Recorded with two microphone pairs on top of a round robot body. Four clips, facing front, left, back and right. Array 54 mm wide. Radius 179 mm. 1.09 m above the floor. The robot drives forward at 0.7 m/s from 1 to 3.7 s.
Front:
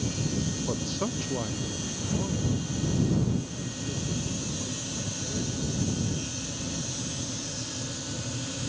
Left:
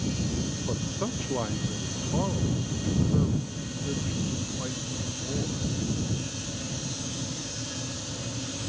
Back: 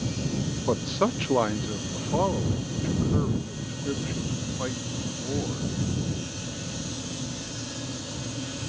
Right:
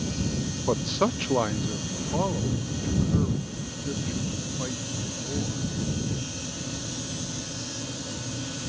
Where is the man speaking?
135° right; by 5.7 s 175° right.